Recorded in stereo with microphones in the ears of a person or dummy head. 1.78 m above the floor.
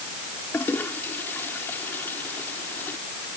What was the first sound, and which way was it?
A toilet flushing, 10° left (ahead or behind).